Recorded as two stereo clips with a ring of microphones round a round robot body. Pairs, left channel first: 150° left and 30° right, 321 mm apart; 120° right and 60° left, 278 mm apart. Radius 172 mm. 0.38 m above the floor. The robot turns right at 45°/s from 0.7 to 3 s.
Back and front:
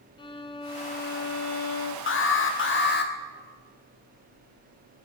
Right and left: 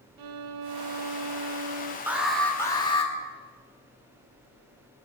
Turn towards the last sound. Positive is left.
turn(degrees=180)